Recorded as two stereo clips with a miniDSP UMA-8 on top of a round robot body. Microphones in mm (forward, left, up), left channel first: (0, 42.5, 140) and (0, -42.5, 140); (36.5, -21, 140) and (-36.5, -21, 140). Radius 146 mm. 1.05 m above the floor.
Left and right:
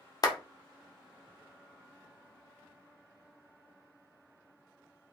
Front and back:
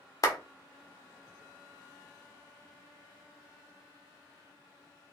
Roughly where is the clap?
Ahead left.